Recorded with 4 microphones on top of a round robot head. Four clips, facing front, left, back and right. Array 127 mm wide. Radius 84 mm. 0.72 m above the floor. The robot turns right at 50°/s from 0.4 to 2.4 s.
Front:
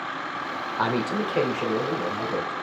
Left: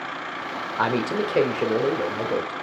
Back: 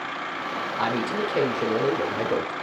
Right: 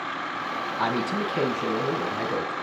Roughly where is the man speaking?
Left.